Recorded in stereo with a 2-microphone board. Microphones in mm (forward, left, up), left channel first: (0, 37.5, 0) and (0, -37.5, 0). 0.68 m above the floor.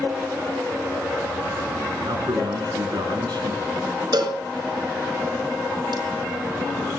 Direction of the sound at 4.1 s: 70° right (ahead or behind).